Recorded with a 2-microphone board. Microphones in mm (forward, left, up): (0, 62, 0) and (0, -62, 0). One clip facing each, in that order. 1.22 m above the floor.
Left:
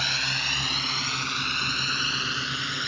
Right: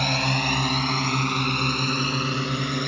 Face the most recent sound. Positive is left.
turn(degrees=-50)  # may be behind; listen again after turning